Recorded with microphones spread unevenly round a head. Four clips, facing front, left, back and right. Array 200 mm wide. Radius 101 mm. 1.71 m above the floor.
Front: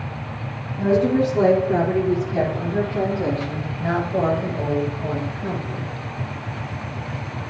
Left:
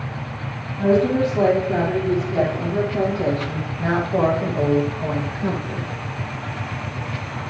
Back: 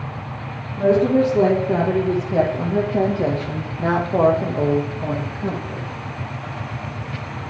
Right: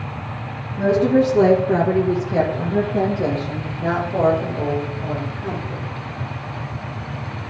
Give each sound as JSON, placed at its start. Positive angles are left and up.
{"t": 0.8, "sound": "a woman speaking", "azimuth_deg": -125, "distance_m": 3.0}